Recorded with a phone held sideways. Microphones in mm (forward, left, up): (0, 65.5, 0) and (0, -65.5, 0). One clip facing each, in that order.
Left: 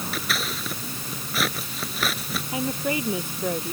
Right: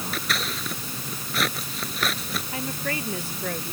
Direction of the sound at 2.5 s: 15° left (ahead or behind).